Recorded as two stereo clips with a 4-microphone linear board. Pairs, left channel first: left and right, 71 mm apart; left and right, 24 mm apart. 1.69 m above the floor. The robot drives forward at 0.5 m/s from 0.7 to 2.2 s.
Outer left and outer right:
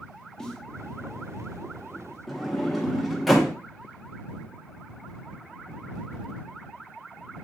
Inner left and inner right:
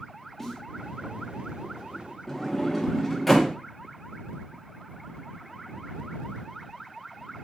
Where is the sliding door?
Centre (ahead or behind), 0.7 m.